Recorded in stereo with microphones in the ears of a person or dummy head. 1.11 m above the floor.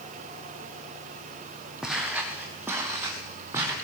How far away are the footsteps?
About 2 m.